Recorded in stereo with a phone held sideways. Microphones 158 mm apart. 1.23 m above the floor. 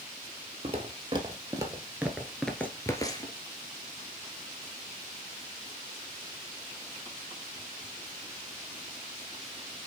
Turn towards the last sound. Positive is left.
turn(degrees=30)  # may be behind; listen again after turning